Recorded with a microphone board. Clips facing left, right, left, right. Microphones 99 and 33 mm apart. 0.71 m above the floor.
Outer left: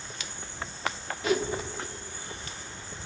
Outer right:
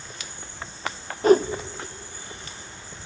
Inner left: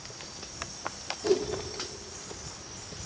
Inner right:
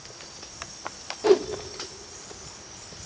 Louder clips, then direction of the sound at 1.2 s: Outer right 11 dB, inner right 7 dB; 45° right (ahead or behind).